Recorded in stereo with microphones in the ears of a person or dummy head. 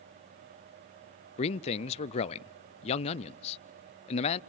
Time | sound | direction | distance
1.4 | a man speaking | 30° left (ahead or behind) | 0.5 m